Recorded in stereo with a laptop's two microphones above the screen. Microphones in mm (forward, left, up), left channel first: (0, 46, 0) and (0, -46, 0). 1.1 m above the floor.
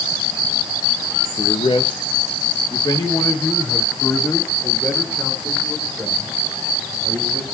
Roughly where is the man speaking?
Left.